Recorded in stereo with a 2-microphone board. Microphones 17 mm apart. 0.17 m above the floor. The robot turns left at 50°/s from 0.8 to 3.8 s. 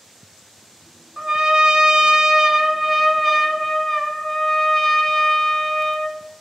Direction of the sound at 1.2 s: 70° right.